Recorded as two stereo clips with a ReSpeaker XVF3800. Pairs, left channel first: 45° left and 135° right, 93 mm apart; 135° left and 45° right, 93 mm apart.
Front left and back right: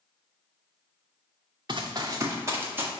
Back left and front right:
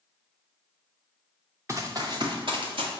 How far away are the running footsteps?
About 1.0 m.